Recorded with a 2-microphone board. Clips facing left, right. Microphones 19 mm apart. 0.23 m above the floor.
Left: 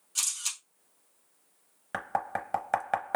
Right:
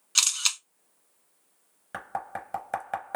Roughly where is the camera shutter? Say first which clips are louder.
Right 8 dB; right.